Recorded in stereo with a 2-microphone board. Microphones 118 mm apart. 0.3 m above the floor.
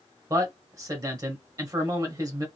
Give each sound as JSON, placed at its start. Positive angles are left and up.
{"t": 0.3, "sound": "a man speaking", "side_deg": -30, "distance_m": 1.1}